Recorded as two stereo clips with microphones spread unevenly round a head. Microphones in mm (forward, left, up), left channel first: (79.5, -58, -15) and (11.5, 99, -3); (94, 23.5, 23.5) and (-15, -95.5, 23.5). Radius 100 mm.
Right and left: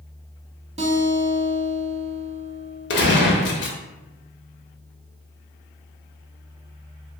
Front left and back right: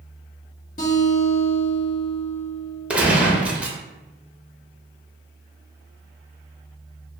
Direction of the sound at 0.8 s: 80° left.